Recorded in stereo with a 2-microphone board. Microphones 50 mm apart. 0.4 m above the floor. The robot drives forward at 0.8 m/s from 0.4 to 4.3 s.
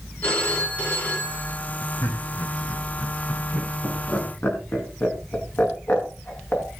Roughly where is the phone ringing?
Left.